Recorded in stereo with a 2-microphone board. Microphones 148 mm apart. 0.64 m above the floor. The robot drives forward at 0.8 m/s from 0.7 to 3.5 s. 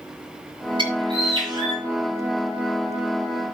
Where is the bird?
35° right (ahead or behind), 5 m; by 1.8 s 30° right (ahead or behind), 5.5 m.